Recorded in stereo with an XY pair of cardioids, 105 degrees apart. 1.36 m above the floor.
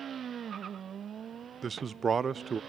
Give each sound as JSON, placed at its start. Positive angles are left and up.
{"t": 1.6, "sound": "a man speaking", "azimuth_deg": -40, "distance_m": 0.5}